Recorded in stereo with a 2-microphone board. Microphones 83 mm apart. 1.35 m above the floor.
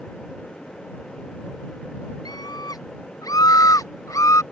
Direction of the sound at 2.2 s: 55° left (ahead or behind).